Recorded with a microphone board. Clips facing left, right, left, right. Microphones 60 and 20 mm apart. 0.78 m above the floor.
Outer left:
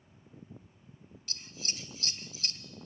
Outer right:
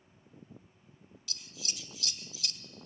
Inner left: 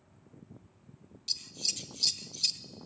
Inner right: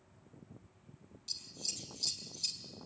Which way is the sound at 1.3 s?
40° left (ahead or behind).